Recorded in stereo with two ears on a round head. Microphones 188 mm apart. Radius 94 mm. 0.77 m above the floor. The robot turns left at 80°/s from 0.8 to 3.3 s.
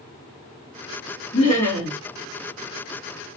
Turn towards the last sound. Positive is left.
turn(degrees=-115)